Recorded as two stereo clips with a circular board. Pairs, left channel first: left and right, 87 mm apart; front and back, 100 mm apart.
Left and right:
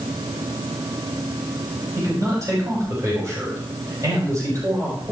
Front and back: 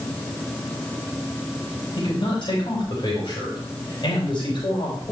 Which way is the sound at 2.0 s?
40° right.